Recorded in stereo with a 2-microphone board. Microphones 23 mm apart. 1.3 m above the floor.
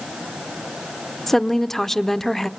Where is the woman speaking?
15° left (ahead or behind), 0.6 m.